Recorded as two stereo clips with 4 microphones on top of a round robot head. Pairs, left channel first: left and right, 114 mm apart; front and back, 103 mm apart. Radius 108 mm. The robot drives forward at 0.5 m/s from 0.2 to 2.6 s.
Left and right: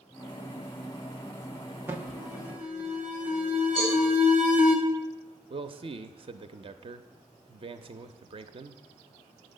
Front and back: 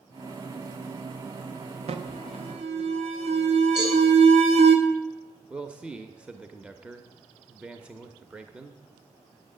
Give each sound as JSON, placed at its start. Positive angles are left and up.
{"t": 1.9, "sound": "an alarm", "azimuth_deg": -165, "distance_m": 0.9}
{"t": 3.8, "sound": "a cowbell", "azimuth_deg": -160, "distance_m": 5.5}
{"t": 5.5, "sound": "a man speaking", "azimuth_deg": -100, "distance_m": 0.6}